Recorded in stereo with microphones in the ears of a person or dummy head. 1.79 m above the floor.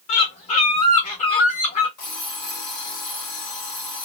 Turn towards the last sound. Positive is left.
turn(degrees=45)  # may be behind; listen again after turning